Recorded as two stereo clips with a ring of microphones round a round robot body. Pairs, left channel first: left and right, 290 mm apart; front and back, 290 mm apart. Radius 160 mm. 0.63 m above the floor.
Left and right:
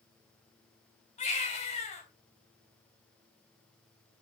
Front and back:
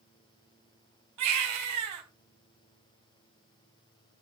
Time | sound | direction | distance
1.2 | a baby crying | 160° left | 4 m